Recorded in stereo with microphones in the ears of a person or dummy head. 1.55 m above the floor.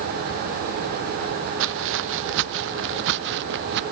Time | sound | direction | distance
1.6 | footsteps | 75° right (ahead or behind) | ?